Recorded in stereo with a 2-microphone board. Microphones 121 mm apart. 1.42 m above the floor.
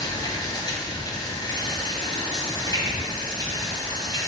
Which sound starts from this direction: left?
Running water, at 0.0 s.